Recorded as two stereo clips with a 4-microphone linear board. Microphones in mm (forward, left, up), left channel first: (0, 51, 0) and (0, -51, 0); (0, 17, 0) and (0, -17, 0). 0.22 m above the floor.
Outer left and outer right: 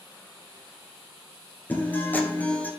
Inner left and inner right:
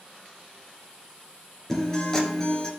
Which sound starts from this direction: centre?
A guitar, at 1.7 s.